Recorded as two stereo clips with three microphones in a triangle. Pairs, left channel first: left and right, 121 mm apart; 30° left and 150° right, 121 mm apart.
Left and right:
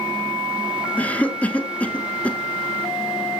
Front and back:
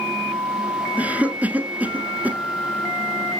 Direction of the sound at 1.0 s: 150° left.